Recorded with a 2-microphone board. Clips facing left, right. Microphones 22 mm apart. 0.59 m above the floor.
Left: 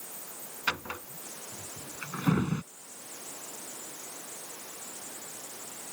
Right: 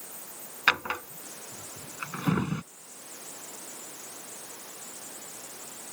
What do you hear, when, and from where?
0.7 s a drawer: 55° right (ahead or behind)